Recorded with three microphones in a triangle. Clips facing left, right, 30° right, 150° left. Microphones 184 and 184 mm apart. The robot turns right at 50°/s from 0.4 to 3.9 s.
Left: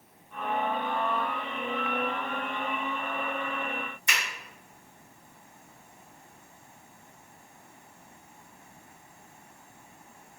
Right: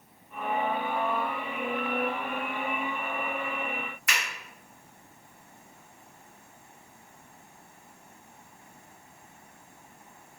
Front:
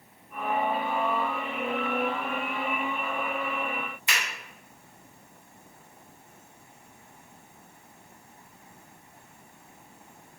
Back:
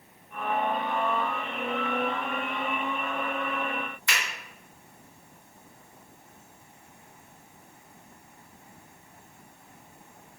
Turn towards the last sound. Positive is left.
turn(degrees=35)